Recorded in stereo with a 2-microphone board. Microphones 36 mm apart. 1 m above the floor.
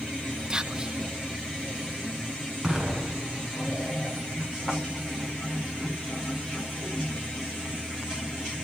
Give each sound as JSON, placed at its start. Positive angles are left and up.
{"t": 0.5, "sound": "whispering", "side_deg": -20, "distance_m": 0.7}
{"t": 2.6, "sound": "an explosion", "side_deg": -5, "distance_m": 8.0}